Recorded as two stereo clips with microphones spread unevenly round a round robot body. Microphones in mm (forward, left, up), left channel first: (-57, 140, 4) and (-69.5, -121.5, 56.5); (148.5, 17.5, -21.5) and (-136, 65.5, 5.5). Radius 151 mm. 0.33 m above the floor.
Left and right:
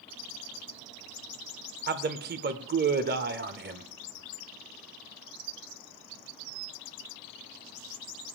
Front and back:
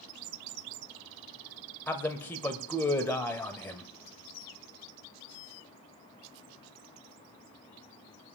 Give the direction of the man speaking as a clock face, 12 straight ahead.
2 o'clock.